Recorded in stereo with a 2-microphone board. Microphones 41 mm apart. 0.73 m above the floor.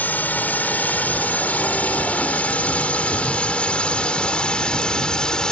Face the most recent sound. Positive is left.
turn(degrees=20)  # may be behind; listen again after turning